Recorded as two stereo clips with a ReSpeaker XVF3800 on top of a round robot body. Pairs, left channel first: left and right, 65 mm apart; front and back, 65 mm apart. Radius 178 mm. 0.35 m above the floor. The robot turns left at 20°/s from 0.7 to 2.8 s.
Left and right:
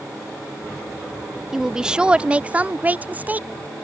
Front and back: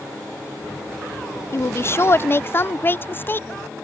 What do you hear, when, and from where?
1.5 s a woman speaking: 10° right; by 3.5 s 35° right